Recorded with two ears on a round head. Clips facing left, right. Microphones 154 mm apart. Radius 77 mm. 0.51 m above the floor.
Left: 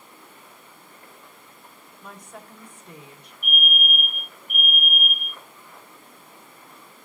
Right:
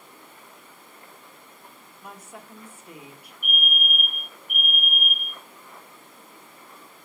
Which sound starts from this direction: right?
A fire alarm, at 3.4 s.